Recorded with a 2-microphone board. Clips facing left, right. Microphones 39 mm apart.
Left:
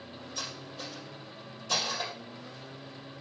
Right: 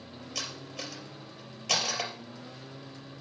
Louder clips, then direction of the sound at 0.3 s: Right 2 dB; 80° right.